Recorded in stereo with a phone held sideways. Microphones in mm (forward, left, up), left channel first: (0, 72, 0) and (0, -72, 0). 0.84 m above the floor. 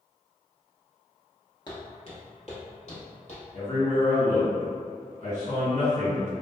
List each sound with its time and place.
1.7 s footsteps: 35° left (ahead or behind), 0.9 m; by 3.4 s 60° left (ahead or behind), 1.7 m
3.5 s a man speaking: 55° left (ahead or behind), 1.9 m